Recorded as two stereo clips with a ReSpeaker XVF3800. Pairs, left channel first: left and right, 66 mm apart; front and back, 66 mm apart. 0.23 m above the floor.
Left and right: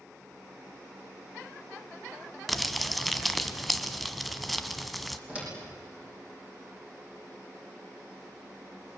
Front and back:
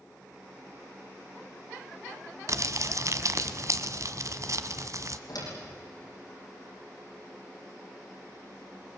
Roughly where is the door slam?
Ahead.